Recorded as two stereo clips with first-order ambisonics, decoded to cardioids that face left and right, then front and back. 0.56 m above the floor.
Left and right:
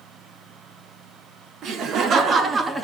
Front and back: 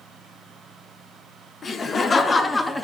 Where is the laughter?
65° right, 1.0 m; by 2.8 s 80° right, 0.7 m.